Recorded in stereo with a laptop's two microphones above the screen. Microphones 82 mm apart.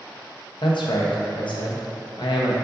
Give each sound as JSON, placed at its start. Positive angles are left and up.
{"t": 0.6, "sound": "a man speaking", "side_deg": 75, "distance_m": 0.8}